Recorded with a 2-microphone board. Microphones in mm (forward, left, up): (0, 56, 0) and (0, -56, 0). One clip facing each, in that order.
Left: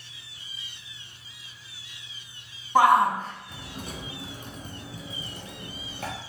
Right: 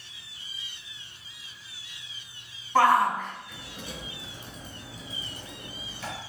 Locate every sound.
2.8 s a shout: 15° left (ahead or behind), 1.2 m; by 6.1 s 55° left (ahead or behind), 3 m